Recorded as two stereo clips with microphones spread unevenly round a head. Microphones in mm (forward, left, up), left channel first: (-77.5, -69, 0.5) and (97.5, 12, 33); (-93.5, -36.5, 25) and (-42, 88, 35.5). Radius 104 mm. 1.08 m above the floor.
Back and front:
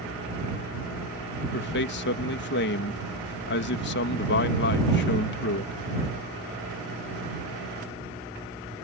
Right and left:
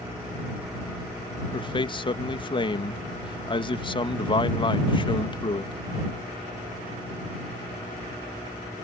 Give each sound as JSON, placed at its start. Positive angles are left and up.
{"t": 1.5, "sound": "a man speaking", "azimuth_deg": -160}